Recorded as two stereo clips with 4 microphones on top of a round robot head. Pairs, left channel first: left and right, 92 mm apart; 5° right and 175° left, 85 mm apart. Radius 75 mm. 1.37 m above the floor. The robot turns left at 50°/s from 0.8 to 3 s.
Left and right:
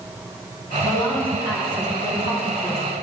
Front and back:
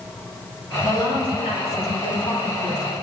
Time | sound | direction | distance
0.8 | a woman speaking | 35° left | 2.5 m